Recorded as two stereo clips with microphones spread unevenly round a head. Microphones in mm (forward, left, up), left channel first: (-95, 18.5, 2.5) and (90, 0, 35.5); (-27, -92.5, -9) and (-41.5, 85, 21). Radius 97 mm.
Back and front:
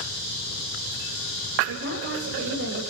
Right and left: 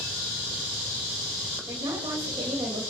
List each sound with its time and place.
1.6 s a woman speaking: 15° left, 8 m